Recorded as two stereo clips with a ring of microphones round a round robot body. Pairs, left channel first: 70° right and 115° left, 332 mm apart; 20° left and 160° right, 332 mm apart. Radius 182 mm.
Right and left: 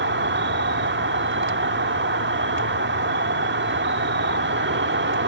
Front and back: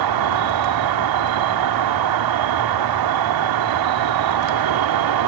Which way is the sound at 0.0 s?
175° left.